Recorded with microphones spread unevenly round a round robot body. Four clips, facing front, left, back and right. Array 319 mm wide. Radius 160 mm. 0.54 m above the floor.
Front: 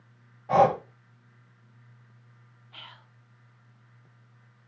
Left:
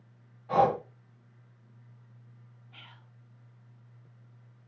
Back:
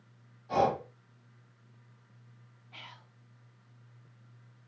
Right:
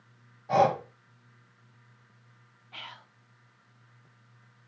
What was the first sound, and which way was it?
Breathing, 15° right.